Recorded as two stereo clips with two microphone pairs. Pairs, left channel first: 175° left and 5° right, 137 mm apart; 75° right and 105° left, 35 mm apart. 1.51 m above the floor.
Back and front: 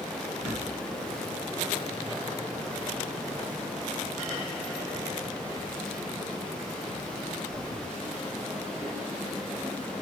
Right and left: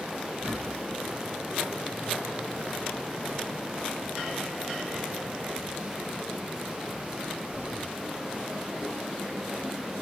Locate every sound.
0.3 s a bird: 90° left, 3.5 m